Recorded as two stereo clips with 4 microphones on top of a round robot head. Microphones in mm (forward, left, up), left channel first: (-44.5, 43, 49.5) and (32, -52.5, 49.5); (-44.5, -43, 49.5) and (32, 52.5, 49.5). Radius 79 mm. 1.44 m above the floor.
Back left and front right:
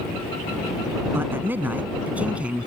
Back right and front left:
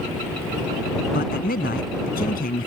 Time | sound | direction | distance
1.1 | a man speaking | 125° right | ?